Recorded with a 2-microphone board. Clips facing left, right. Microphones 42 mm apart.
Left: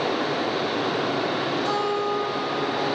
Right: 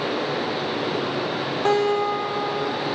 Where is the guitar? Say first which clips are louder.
Right 8 dB; 55° right (ahead or behind), 2.5 m.